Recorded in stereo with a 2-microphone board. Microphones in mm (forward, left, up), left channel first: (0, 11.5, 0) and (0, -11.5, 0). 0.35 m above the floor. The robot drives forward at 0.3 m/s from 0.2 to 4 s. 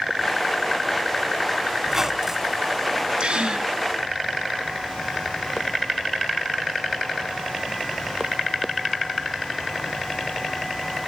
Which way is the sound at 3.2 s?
60° right (ahead or behind).